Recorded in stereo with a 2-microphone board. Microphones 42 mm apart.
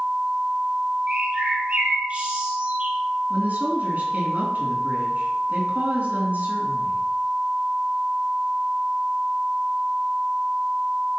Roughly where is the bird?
Right.